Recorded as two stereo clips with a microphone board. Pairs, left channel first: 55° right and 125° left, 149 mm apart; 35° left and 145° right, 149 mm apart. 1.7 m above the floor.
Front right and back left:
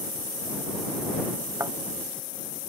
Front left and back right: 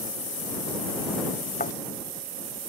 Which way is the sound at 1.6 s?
55° left.